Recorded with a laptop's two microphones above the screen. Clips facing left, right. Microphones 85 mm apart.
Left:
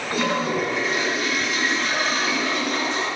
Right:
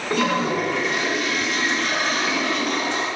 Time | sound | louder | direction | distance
0.1 | a toilet flushing | right 2 dB | 70° right (ahead or behind) | 3.5 m